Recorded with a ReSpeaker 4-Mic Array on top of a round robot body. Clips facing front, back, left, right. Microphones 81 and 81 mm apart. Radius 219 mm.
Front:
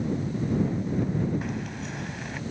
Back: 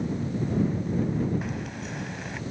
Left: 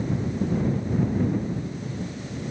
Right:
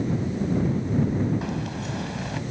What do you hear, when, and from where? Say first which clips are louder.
1.4 s keys jangling: front 1 dB, right 1 dB; 90° right